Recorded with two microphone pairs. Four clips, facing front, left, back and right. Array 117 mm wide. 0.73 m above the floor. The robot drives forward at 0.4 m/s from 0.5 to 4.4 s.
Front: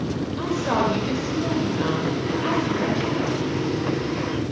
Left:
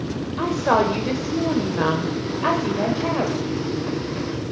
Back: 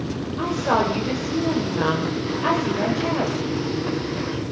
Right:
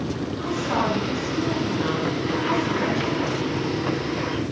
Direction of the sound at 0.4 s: 95° left.